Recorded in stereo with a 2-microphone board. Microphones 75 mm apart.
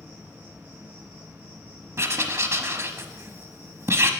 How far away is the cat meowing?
No cat meowing in this recording.